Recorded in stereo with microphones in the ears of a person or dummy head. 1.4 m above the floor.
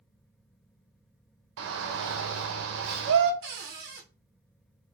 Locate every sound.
1.6 s a shout: 75° right (ahead or behind), 0.7 m
3.4 s a cupboard door: 60° right (ahead or behind), 0.7 m